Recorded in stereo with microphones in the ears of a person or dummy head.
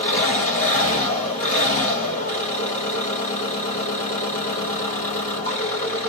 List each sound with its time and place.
0.0 s an engine running: 40° left (ahead or behind), 1.6 m